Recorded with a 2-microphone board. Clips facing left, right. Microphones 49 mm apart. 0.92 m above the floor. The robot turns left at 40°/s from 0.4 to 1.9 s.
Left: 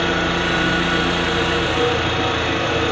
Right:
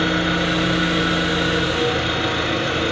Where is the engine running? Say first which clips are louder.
Even; 120° left, 1.7 m; by 2.9 s 60° left, 1.7 m.